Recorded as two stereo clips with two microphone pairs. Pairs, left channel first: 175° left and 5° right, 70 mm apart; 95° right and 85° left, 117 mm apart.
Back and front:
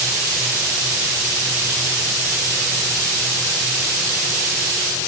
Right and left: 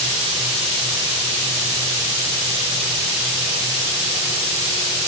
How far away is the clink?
I don't hear a clink.